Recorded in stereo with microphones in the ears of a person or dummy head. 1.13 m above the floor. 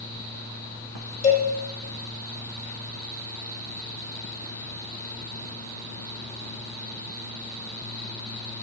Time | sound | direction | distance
1.2 | a cowbell | 40° left (ahead or behind) | 1.9 m